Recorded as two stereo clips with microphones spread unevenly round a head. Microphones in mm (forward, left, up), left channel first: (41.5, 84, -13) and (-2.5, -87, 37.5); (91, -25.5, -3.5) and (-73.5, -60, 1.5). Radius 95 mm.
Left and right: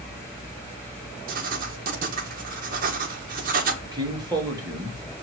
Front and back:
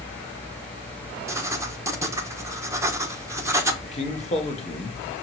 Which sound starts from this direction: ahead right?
A man speaking, at 3.8 s.